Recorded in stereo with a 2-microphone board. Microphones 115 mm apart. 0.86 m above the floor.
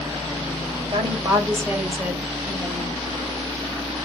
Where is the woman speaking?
40° right (ahead or behind), 3.5 m; by 3.0 s 10° left (ahead or behind), 4 m.